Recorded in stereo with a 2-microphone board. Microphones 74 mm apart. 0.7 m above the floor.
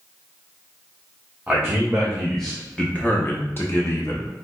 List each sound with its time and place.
1.5 s a man speaking: 10° right (ahead or behind), 1.1 m; by 4.3 s 40° left (ahead or behind), 1.0 m